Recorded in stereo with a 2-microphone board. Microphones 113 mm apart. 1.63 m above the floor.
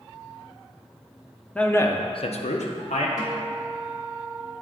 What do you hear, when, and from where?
1.6 s a man speaking: 10° left (ahead or behind), 0.7 m; by 3.1 s 75° left (ahead or behind), 1.0 m
3.2 s a guitar: 30° left (ahead or behind), 1.3 m